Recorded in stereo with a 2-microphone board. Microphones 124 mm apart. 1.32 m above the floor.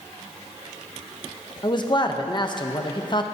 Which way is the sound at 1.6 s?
35° left (ahead or behind).